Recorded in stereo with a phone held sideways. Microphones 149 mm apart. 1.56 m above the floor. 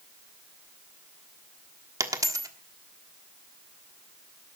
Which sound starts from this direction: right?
A dropped coin, at 2.0 s.